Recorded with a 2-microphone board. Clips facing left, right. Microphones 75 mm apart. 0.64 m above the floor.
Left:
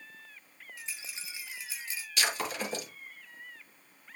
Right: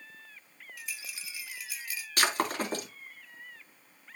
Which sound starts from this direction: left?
A rattle, at 0.8 s.